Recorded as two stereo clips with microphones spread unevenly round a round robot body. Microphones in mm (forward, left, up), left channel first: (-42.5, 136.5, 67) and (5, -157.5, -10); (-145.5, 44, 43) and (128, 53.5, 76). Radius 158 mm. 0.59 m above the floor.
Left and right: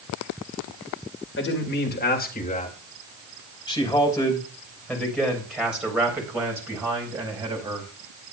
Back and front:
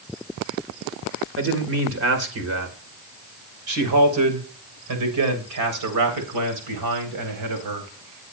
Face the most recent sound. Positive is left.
turn(degrees=-10)